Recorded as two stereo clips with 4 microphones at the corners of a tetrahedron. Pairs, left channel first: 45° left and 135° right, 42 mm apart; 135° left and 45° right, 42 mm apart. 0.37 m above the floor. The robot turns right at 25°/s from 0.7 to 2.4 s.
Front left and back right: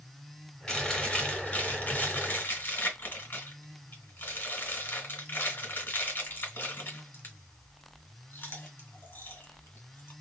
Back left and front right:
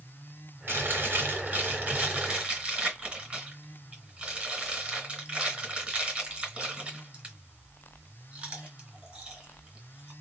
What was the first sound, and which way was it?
Chewing, 25° right.